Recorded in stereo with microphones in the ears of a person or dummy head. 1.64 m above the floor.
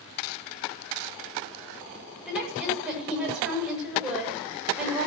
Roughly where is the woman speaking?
Centre.